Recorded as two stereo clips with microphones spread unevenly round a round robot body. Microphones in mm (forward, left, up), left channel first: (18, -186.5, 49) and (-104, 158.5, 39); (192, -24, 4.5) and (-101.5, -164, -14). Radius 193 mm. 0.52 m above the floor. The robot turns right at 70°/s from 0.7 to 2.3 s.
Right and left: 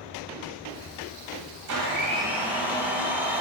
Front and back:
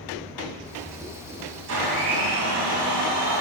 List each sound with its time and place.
1.7 s a blender: 150° left, 2 m; by 3.4 s 165° right, 2 m